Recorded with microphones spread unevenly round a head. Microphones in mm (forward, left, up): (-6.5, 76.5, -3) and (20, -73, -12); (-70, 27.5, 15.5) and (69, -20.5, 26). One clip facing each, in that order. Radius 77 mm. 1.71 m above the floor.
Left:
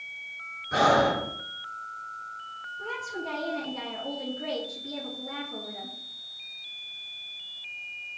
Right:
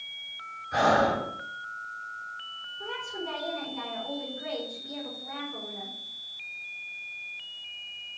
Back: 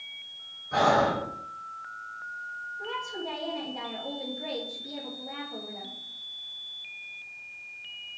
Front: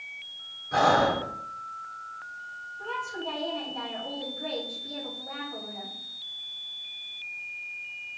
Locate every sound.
0.7 s breathing: 70° left, 2 m
2.8 s a woman speaking: 90° left, 2.5 m